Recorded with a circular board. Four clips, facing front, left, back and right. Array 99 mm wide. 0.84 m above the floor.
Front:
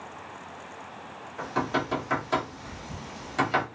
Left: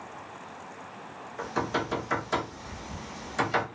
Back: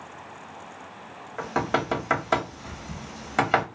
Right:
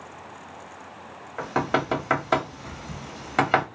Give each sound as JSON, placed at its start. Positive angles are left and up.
{"t": 1.4, "sound": "knocking", "azimuth_deg": -125, "distance_m": 0.8}